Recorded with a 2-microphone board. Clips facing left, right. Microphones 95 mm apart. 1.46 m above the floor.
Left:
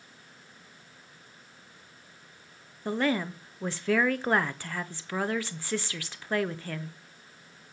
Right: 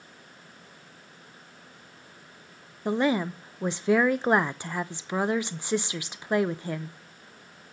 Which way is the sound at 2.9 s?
15° right (ahead or behind).